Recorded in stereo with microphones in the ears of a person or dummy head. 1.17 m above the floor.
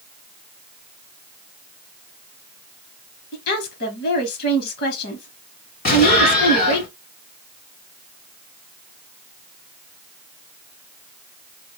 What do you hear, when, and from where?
3.3 s a woman speaking: 55° left (ahead or behind), 1.4 m
5.8 s an explosion: 45° left (ahead or behind), 1.3 m